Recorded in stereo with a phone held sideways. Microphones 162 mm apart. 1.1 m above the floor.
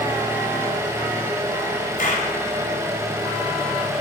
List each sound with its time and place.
0.0 s an engine running: 20° right (ahead or behind), 2.5 m
2.0 s a clap: 55° left (ahead or behind), 3.5 m